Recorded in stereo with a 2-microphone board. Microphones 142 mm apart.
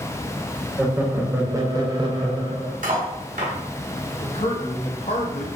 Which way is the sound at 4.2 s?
50° left (ahead or behind).